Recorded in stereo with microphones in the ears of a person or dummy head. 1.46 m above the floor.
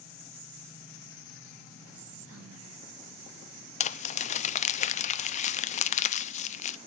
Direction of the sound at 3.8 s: 35° left (ahead or behind).